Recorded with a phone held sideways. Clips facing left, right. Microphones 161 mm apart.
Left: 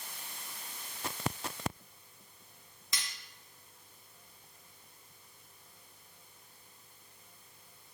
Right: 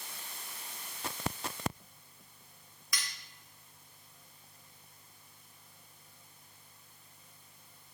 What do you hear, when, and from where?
2.9 s cutlery clinking: 25° left (ahead or behind), 0.8 m